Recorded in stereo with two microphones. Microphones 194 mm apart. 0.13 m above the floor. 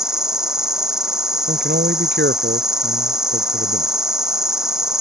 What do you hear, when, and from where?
0.0 s an insect: 5° right (ahead or behind)
1.5 s a man speaking: 65° right (ahead or behind)